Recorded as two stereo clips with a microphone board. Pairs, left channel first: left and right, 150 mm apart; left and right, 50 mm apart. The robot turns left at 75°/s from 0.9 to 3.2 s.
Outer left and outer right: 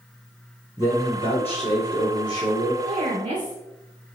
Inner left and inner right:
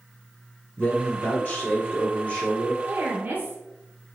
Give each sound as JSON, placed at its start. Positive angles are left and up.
{"t": 0.8, "sound": "a man speaking", "azimuth_deg": 150, "distance_m": 1.7}
{"t": 2.8, "sound": "a woman speaking", "side_deg": -20, "distance_m": 1.3}